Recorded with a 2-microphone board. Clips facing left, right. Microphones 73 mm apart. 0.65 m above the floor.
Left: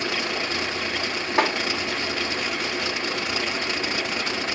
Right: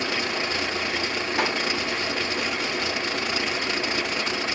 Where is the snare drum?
45° left (ahead or behind), 2.5 m.